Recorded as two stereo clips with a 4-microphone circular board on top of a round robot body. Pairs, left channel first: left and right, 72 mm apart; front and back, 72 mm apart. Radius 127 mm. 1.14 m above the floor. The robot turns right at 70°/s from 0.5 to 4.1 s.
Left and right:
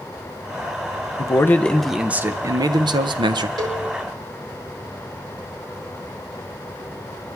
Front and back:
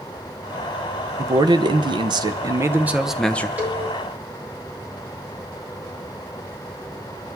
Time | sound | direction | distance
1.2 | a man speaking | 135° left | 0.7 m
3.6 | a cowbell | 110° right | 2.5 m